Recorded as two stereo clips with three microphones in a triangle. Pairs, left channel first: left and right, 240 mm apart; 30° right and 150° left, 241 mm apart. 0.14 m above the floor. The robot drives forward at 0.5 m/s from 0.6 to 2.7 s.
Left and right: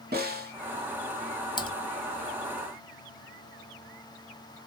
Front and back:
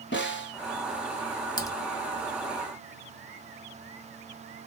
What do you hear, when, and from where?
0.1 s a snare drum: 50° right, 0.8 m
1.6 s typing on a keyboard: 30° left, 0.6 m; by 1.7 s 35° left, 0.5 m